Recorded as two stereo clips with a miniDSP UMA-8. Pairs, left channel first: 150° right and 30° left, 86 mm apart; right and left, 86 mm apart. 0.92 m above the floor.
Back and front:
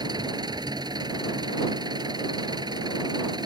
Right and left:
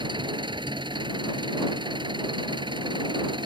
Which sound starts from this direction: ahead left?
An engine running, at 0.0 s.